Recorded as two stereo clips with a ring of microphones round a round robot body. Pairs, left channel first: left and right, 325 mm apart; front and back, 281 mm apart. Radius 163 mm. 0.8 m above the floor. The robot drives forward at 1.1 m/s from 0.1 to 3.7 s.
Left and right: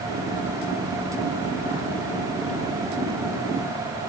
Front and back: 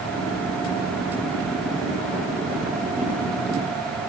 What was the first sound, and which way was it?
Only background noise.